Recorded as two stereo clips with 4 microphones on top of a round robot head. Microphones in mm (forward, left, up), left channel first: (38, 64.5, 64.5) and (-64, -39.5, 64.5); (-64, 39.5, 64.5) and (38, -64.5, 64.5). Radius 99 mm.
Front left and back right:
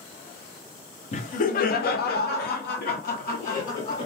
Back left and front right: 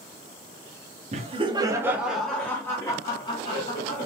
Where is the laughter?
Straight ahead, 1.0 m; by 4.0 s 80° left, 2 m.